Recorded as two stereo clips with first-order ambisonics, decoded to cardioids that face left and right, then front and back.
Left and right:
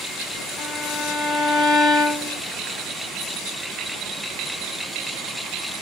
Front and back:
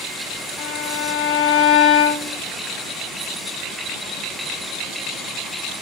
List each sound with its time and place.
0.6 s a violin: 20° left, 1.6 m